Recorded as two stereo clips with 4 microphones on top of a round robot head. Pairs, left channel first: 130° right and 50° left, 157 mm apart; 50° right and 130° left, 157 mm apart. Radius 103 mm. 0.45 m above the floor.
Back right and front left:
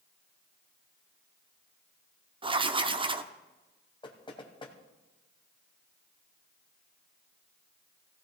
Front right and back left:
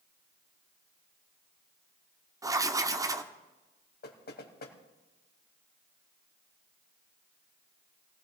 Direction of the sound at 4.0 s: 70° right.